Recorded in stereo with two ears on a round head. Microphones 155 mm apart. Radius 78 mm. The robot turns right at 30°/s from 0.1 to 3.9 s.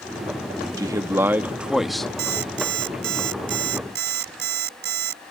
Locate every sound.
0.8 s a man speaking: 35° right; by 2.1 s 5° left
2.2 s an alarm clock: 115° right; by 5.2 s 65° right